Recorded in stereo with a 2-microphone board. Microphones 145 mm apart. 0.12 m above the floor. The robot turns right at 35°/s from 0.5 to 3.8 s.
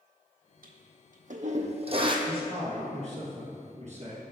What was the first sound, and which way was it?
A toilet flushing, 80° right.